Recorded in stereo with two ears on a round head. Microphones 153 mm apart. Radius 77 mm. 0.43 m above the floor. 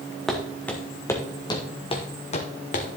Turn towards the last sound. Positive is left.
turn(degrees=50)  # may be behind; listen again after turning